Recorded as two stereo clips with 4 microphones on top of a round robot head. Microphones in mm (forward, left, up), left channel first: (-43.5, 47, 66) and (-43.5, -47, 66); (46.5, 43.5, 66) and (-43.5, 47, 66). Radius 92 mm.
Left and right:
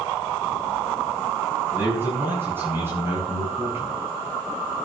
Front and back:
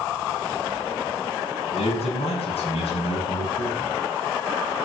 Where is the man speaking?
15° right, 8 m; by 4.0 s 20° right, 7 m.